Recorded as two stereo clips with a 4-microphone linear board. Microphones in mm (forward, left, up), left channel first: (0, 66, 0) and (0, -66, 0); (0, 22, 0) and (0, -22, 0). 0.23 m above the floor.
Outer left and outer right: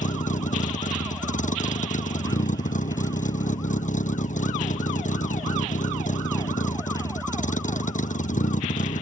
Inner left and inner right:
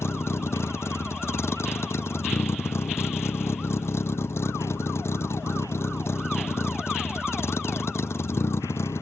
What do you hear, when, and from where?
0.0 s a vehicle: 80° left